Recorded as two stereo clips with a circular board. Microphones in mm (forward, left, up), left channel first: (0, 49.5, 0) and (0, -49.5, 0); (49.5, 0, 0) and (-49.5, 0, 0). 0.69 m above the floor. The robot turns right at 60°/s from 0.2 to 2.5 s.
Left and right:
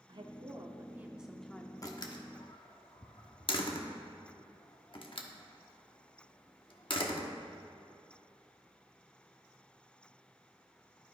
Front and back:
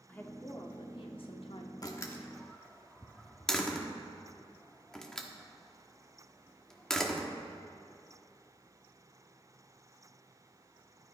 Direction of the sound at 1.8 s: 45° left.